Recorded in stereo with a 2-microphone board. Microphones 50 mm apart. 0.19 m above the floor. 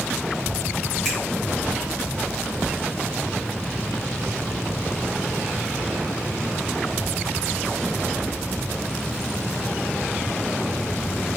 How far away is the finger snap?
About 1.4 m.